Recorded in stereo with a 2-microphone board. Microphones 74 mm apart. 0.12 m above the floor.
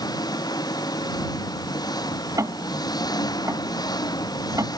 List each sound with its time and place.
0.0 s an engine running: 60° left (ahead or behind)
2.4 s ticking: 45° right (ahead or behind)